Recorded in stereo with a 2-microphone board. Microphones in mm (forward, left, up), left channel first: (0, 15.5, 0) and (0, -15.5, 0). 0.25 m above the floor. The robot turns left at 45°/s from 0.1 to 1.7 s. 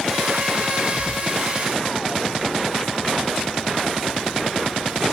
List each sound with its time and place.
0.9 s whispering: 35° left (ahead or behind), 4 m; by 1.3 s 15° left (ahead or behind), 4 m